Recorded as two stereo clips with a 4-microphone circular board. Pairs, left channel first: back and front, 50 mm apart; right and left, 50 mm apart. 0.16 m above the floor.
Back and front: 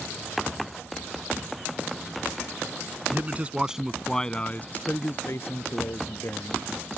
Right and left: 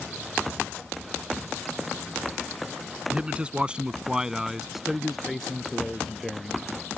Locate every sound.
3.1 s a man speaking: 30° left; by 6.6 s 170° right